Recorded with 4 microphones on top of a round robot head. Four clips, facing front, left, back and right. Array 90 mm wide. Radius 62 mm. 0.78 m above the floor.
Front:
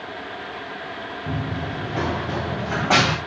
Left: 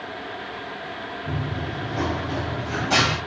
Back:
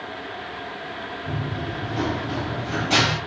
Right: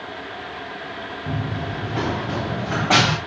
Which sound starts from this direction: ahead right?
Running footsteps, at 1.3 s.